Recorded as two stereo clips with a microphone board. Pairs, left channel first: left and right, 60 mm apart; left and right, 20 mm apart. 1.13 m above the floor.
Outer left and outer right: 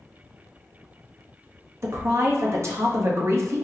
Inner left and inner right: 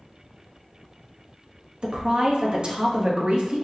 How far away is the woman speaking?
About 0.9 m.